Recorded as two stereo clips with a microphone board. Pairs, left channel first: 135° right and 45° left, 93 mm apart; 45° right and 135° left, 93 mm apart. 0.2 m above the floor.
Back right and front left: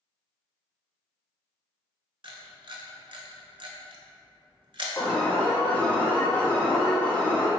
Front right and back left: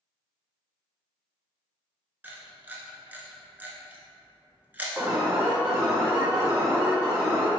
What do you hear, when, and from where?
2.2 s a camera shutter: 65° left, 0.7 m
5.0 s an alarm: 170° left, 1.2 m